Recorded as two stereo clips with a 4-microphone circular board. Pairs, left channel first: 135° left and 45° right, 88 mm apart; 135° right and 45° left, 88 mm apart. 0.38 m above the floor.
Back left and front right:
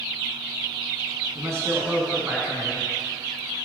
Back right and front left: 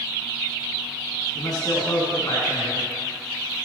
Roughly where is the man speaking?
Right.